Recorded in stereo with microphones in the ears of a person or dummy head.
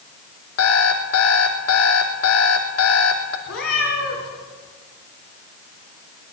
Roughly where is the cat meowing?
Left.